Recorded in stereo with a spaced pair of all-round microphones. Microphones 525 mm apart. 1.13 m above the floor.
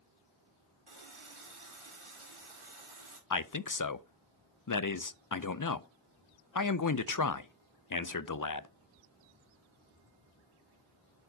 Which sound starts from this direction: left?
A man speaking, at 3.3 s.